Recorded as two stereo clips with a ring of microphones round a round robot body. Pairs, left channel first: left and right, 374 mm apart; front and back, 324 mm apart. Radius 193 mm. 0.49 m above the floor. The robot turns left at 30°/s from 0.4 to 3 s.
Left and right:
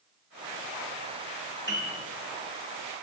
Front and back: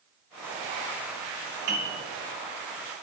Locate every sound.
1.7 s a piano: 170° right, 1.0 m; by 2.0 s straight behind, 1.0 m